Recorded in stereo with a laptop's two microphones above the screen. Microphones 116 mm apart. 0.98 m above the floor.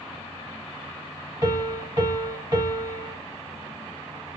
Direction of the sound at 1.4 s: 30° right (ahead or behind).